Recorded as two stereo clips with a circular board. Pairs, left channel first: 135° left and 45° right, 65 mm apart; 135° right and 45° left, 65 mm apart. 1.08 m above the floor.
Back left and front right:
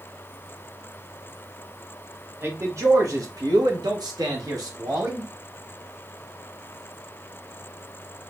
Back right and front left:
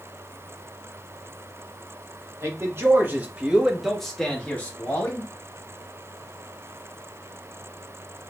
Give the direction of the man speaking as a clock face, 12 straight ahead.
12 o'clock.